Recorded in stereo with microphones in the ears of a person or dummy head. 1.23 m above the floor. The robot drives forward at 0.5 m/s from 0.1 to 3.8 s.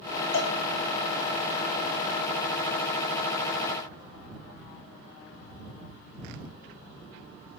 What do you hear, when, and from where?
0.3 s a cowbell: 85° left, 5 m